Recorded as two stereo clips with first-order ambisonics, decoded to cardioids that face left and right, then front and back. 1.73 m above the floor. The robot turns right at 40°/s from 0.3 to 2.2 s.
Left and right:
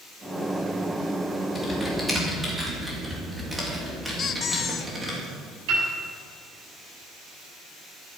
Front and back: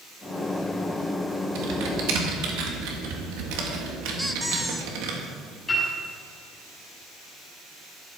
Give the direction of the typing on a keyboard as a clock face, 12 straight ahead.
7 o'clock.